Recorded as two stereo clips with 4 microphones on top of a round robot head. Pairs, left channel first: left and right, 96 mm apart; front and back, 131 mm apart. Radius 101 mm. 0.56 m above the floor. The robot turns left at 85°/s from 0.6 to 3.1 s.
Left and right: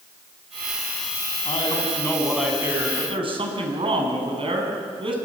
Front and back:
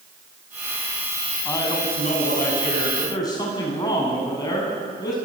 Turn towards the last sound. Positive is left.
turn(degrees=-65)